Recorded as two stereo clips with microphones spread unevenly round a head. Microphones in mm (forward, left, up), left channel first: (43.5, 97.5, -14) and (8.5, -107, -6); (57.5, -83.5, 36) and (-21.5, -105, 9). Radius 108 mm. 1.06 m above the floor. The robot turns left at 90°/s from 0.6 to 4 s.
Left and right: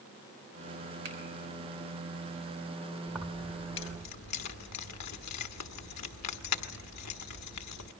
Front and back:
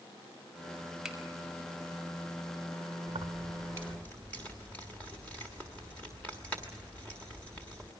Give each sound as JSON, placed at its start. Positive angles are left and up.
{"t": 1.1, "sound": "a finger snap", "azimuth_deg": -80, "distance_m": 5.5}
{"t": 3.1, "sound": "keys jangling", "azimuth_deg": -175, "distance_m": 1.3}